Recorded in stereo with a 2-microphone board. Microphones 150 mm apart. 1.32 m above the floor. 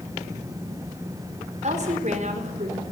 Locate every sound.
1.6 s a woman speaking: 50° right (ahead or behind), 5 m